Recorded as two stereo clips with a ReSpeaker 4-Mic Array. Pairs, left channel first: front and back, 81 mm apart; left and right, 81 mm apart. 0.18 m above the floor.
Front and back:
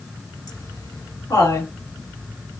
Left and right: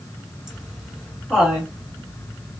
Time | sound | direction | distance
0.5 | laughter | 10° right | 1.7 m